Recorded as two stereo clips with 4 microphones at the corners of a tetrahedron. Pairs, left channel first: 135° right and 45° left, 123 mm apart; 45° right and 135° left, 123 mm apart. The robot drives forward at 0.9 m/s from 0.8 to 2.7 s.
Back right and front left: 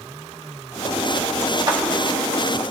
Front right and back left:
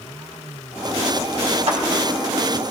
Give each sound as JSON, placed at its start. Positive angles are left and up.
{"t": 1.7, "sound": "a clap", "azimuth_deg": 95, "distance_m": 2.0}